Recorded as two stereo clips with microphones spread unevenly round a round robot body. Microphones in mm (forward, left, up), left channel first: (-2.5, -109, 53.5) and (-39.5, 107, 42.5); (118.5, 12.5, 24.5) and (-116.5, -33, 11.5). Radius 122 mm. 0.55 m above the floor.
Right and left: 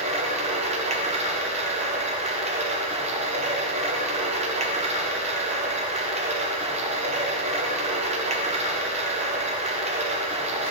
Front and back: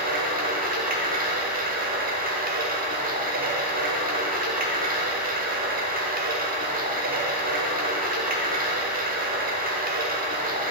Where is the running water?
150° left, 0.8 m.